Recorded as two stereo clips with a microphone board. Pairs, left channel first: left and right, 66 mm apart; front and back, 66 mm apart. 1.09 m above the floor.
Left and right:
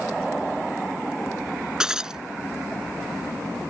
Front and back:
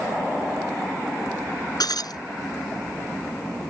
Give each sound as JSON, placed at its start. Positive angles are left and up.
{"t": 1.8, "sound": "breaking glass", "azimuth_deg": -10}